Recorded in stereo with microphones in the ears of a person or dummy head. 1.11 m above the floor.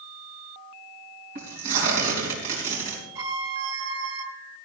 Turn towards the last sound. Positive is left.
turn(degrees=-75)  # may be behind; listen again after turning